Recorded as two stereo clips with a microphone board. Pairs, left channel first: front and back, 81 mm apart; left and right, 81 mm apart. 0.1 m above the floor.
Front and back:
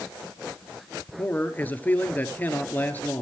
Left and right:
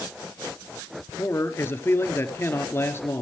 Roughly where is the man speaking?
Ahead left.